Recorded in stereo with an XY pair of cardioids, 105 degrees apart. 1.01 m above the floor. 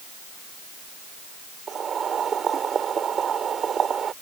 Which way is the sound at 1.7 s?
50° right.